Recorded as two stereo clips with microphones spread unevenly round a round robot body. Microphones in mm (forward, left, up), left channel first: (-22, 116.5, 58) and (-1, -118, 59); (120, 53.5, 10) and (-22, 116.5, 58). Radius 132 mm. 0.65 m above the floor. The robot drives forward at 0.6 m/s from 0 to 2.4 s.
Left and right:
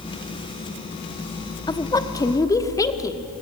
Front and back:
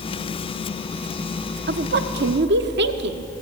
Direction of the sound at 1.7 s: 165° left.